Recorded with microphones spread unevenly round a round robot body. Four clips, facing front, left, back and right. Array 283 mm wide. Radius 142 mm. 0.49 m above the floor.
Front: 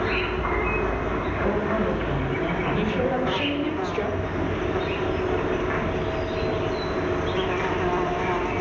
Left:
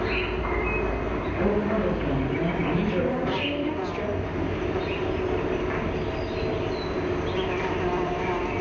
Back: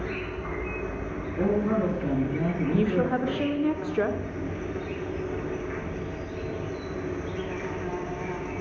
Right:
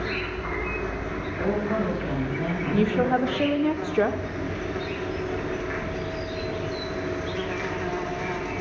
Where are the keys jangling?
I don't hear keys jangling.